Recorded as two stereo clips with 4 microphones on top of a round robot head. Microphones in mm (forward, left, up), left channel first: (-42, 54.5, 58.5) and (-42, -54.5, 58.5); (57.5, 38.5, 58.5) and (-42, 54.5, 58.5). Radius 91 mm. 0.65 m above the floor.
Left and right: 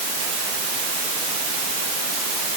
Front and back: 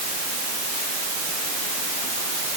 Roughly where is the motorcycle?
I don't hear a motorcycle.